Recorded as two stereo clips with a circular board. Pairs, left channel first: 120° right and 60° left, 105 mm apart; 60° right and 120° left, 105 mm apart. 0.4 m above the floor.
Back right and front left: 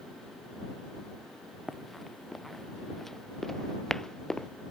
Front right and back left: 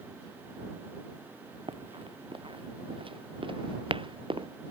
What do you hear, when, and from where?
1.7 s running footsteps: 150° left; by 4.5 s 155° left